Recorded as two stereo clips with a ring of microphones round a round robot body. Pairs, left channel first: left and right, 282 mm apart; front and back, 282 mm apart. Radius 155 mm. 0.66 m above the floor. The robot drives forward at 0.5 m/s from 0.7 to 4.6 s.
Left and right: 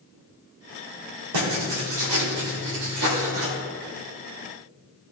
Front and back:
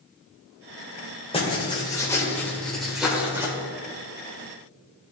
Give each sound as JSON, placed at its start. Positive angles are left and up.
{"t": 1.3, "sound": "writing", "azimuth_deg": -70, "distance_m": 2.5}